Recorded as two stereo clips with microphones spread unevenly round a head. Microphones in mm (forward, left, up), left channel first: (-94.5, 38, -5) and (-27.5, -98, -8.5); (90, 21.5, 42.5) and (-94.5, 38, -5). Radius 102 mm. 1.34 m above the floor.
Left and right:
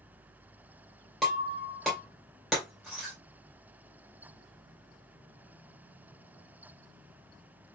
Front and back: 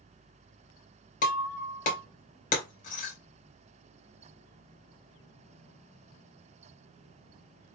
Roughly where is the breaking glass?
Ahead left.